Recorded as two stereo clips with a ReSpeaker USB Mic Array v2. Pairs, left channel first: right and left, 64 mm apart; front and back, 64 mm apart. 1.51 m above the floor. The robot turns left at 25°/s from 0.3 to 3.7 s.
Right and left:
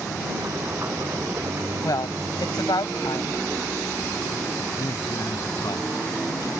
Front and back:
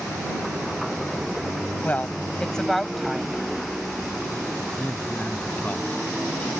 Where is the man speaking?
65° right.